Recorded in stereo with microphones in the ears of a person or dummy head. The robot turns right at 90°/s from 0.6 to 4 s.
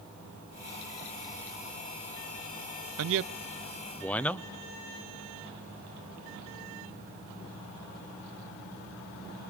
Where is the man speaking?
85° right, 0.7 m; by 4.5 s 5° left (ahead or behind), 0.7 m.